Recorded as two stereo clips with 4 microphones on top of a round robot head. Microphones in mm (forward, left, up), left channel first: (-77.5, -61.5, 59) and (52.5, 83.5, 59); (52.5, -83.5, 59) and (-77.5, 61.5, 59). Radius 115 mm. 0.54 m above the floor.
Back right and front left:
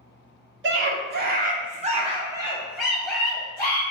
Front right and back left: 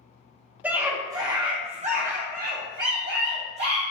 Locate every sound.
0.6 s a scream: 50° left, 1.2 m; by 3.8 s 155° left, 1.3 m